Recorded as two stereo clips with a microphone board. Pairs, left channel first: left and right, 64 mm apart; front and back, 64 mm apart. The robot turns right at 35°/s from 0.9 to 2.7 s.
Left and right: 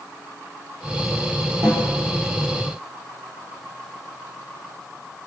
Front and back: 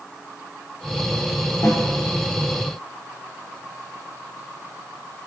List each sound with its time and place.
1.6 s a snare drum: 45° right, 5.5 m; by 1.8 s 35° right, 5.5 m